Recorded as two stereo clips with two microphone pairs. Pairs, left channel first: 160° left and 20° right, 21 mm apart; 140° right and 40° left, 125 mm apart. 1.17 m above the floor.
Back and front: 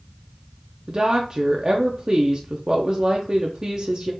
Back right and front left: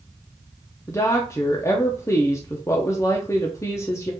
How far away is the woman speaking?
About 0.6 m.